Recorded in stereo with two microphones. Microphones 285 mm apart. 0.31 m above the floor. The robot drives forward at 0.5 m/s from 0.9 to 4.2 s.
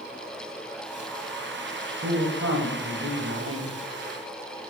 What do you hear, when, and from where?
2.0 s a man speaking: 50° right (ahead or behind), 1.7 m